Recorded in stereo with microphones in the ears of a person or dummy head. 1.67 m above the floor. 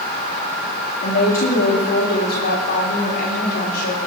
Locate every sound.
1.0 s a woman speaking: 60° left (ahead or behind), 4 m; by 4.0 s 65° left (ahead or behind), 6 m